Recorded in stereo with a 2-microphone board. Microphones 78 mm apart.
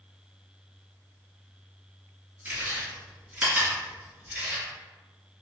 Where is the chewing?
20° right (ahead or behind), 1.9 m.